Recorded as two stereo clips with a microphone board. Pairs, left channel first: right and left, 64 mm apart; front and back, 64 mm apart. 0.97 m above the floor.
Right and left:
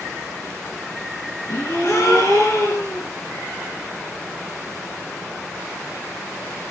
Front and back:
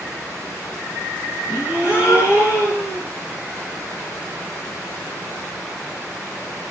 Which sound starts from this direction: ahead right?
A gasp, at 1.5 s.